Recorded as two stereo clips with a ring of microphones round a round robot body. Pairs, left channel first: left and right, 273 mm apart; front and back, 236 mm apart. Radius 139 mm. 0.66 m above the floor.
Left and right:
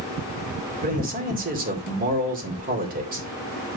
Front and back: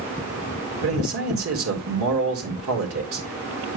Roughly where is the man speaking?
Behind right.